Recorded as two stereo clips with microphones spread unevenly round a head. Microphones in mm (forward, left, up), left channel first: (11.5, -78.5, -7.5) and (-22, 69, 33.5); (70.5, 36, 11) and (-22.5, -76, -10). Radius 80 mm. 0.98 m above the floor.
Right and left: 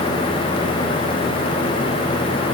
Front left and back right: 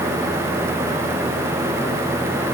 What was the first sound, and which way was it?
Only background noise.